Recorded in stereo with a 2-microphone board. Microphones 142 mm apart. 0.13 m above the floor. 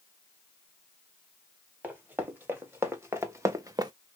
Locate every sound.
1.8 s running footsteps: 15° right (ahead or behind), 2 m; by 3.9 s 35° right (ahead or behind), 0.5 m